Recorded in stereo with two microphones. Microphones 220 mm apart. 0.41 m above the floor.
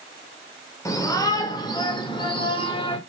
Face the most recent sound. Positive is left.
turn(degrees=25)  # may be behind; listen again after turning